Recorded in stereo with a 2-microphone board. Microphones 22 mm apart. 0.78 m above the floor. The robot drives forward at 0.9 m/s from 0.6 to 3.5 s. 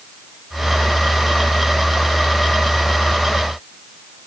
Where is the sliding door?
No sliding door in this recording.